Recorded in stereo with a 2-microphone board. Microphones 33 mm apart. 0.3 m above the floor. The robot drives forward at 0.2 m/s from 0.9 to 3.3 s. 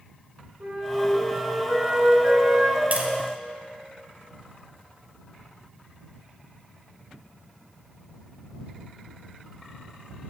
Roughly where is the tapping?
Right.